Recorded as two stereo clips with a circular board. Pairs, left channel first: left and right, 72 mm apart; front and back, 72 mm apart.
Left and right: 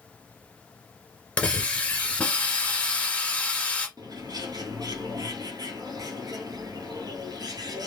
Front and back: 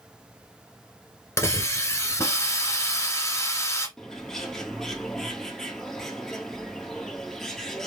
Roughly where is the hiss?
Ahead left.